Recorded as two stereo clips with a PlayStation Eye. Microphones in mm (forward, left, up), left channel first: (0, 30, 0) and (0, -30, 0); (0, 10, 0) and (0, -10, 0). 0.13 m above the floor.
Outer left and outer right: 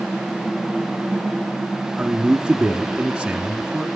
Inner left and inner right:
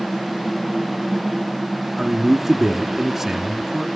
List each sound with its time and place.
2.0 s a man speaking: 15° right (ahead or behind), 1.2 m